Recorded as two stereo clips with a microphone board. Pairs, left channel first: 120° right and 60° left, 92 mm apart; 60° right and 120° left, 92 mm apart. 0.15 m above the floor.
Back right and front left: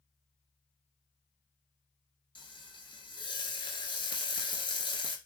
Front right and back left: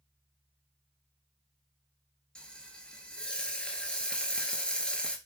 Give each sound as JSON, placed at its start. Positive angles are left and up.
{"t": 2.4, "sound": "frying", "azimuth_deg": -140, "distance_m": 0.6}